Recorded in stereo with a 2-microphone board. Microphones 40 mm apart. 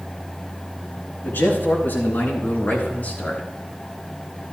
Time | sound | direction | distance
1.2 | a man speaking | 70° left (ahead or behind) | 3.5 m